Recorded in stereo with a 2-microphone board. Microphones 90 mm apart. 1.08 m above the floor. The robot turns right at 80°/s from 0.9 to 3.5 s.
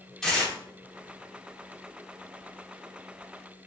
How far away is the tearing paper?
About 1.3 m.